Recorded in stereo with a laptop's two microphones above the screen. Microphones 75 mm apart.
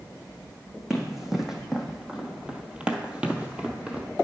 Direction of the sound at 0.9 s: 5° right (ahead or behind).